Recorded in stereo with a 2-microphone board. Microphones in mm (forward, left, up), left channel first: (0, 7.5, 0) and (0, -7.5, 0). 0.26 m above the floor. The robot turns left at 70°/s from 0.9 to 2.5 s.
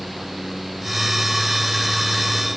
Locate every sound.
Only background noise.